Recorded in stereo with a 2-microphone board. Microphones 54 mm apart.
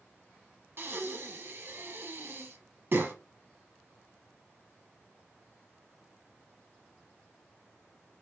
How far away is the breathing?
About 0.7 m.